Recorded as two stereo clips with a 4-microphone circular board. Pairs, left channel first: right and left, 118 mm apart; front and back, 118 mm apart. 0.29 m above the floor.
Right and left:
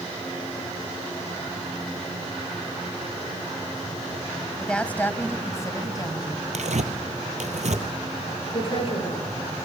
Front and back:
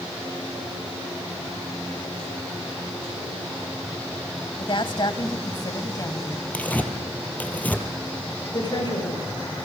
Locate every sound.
4.6 s a woman speaking: 10° right, 1.5 m; by 6.4 s 50° right, 1.8 m
6.5 s tearing paper: 75° left, 2 m
8.5 s a woman speaking: 50° right, 6 m